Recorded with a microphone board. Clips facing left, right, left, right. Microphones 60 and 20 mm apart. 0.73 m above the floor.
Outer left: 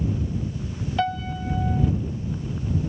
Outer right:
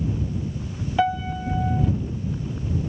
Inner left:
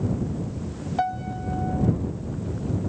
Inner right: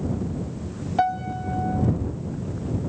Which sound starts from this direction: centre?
A piano, at 1.0 s.